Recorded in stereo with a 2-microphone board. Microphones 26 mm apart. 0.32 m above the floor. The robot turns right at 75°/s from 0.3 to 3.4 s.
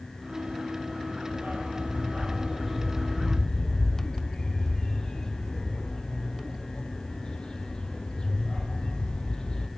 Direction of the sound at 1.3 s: 55° right (ahead or behind).